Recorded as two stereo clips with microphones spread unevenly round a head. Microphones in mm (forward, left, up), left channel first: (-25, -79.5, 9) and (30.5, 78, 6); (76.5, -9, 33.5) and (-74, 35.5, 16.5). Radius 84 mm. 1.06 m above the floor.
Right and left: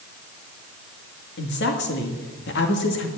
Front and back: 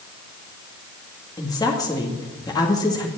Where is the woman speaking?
85° right, 2 m.